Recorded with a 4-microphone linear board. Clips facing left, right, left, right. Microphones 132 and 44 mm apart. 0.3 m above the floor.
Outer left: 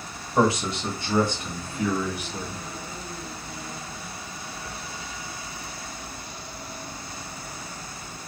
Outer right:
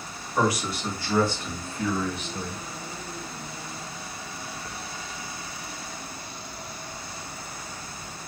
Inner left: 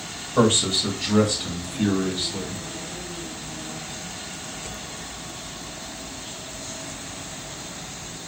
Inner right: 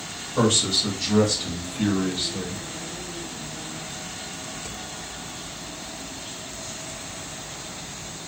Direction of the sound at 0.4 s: 25° left (ahead or behind).